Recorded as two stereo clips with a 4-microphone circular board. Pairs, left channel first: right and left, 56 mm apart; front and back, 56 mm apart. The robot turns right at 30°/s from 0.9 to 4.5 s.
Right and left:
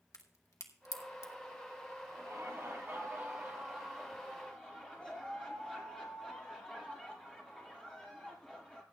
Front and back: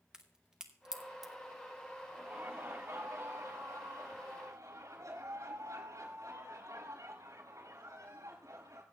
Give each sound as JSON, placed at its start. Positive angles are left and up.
{"t": 0.1, "sound": "a crack", "azimuth_deg": -105, "distance_m": 1.4}
{"t": 2.1, "sound": "laughter", "azimuth_deg": 120, "distance_m": 6.5}